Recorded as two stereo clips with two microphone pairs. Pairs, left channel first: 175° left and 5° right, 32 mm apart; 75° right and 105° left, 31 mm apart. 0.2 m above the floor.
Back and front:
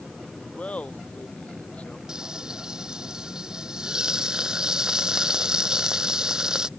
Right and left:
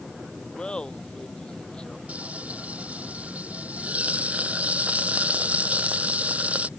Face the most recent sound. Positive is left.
turn(degrees=60)